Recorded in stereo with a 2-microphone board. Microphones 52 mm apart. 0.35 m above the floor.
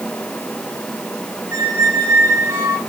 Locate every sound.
1.5 s a squeak: 80° right, 3.5 m